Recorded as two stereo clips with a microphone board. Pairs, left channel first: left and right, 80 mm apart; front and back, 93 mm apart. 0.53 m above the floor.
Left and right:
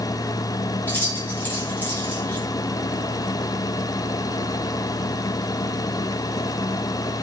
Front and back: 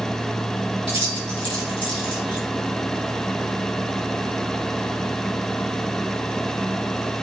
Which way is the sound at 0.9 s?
25° left.